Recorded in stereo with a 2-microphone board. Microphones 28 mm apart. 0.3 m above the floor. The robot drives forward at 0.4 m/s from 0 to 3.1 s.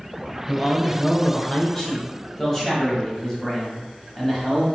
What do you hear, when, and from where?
0.5 s a man speaking: 25° left (ahead or behind), 0.9 m; by 4.7 s 15° left (ahead or behind), 1.3 m